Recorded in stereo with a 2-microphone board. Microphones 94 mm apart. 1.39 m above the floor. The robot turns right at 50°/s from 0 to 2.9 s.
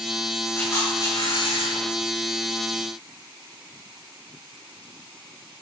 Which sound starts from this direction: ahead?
A camera shutter, at 0.6 s.